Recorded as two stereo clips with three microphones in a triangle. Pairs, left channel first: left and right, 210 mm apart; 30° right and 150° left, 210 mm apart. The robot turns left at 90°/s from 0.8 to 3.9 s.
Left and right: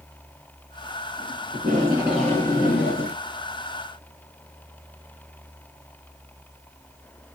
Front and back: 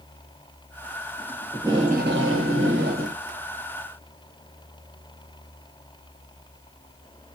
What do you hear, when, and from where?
1.5 s tape being pulled: 120° right, 1.1 m; by 3.2 s 95° left, 1.1 m